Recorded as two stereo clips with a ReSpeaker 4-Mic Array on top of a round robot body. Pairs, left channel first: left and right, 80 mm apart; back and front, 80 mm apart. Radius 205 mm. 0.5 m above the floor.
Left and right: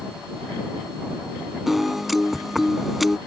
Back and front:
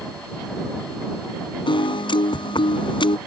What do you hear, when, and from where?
1.7 s a piano: straight behind